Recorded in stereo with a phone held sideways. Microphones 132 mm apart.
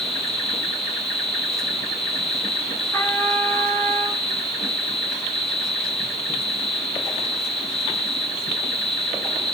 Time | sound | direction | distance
0.0 | an insect | 5° left (ahead or behind) | 2 m
2.9 | a trumpet | 15° left (ahead or behind) | 3 m